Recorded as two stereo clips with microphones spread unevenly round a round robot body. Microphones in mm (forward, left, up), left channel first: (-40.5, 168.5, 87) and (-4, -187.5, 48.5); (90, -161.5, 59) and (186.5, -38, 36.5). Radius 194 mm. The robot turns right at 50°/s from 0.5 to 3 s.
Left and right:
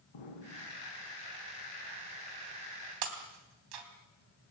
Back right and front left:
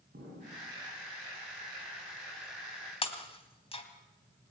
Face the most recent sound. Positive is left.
turn(degrees=-75)